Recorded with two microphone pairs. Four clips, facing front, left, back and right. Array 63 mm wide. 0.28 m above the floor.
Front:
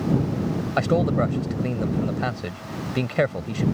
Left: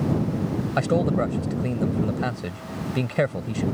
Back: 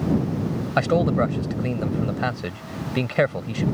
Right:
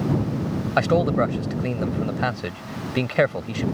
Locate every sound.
0.8 s a man speaking: 115° right